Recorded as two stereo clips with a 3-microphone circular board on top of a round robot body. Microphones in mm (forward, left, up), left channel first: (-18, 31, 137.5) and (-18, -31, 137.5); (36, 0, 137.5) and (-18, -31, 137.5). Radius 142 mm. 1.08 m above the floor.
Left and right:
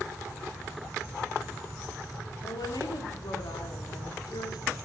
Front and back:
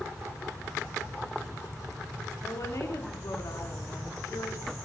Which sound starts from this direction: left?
A woman speaking, at 2.4 s.